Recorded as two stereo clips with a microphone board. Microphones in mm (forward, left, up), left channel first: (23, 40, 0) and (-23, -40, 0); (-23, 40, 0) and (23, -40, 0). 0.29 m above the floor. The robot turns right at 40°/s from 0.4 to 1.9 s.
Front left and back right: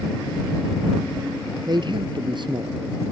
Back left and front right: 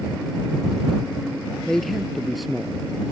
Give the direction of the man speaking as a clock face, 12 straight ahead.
5 o'clock.